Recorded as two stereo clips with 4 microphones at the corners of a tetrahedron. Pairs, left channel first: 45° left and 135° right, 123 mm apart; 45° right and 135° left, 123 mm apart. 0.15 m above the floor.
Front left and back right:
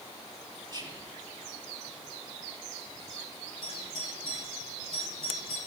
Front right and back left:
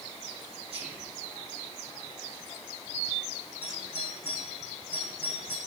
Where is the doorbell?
120° right, 8.5 m.